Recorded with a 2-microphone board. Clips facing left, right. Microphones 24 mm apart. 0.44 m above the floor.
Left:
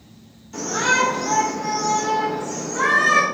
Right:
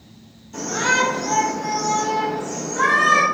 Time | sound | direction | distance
0.5 | a shout | 35° left (ahead or behind) | 1.7 m